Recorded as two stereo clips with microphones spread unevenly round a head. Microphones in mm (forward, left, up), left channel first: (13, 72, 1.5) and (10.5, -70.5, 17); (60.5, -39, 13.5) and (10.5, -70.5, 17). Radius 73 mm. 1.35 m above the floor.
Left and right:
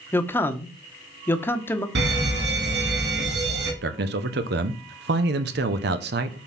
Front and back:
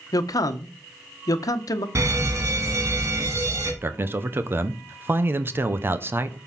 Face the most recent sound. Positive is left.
turn(degrees=-95)